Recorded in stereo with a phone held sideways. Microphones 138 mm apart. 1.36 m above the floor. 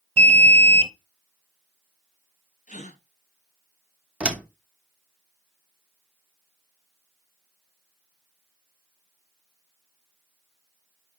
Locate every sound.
0.2 s an alarm: 40° right (ahead or behind), 0.8 m
2.7 s a gasp: 65° left (ahead or behind), 1.1 m
4.2 s a door slam: 10° right (ahead or behind), 1.0 m